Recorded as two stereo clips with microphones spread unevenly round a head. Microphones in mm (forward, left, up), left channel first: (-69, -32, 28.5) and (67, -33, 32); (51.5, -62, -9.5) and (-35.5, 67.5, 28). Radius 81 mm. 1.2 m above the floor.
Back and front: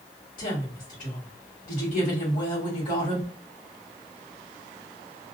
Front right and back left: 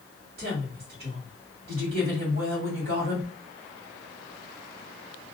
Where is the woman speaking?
155° left, 1.6 m.